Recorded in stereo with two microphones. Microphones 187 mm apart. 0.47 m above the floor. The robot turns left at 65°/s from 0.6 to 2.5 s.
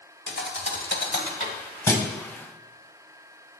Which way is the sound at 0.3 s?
80° left.